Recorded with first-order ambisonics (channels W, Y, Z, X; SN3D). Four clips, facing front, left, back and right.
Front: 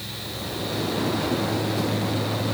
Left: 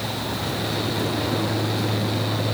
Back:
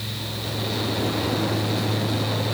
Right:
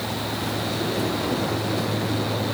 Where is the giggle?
No giggle in this recording.